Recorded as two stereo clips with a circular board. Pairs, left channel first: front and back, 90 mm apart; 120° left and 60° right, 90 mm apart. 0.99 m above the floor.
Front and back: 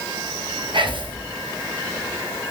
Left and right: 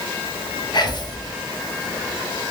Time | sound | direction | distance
0.7 | whispering | 155° left | 0.7 m